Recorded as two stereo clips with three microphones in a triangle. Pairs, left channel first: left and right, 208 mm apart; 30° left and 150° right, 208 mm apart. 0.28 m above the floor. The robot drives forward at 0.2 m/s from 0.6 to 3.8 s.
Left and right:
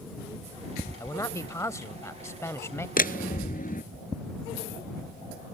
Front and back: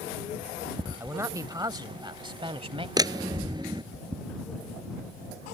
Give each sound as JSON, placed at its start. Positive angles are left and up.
{"t": 1.0, "sound": "a man speaking", "azimuth_deg": 150}
{"t": 3.0, "sound": "a door slam", "azimuth_deg": 140}